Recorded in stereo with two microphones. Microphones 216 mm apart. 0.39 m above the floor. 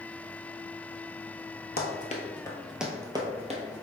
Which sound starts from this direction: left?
Running footsteps, at 1.8 s.